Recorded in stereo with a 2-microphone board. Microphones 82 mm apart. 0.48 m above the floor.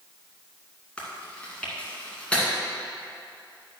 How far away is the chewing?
About 2.5 m.